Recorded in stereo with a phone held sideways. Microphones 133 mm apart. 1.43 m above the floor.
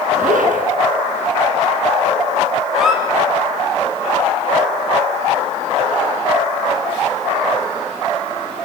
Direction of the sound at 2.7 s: 5° right (ahead or behind).